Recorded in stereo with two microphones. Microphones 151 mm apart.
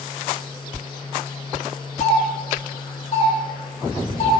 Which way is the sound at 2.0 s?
50° left (ahead or behind).